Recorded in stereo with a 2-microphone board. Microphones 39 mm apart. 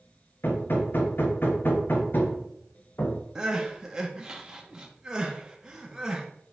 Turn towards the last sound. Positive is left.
turn(degrees=-15)  # may be behind; listen again after turning